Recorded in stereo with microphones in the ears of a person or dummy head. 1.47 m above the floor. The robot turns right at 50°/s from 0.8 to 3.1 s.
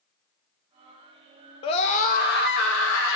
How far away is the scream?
About 0.6 m.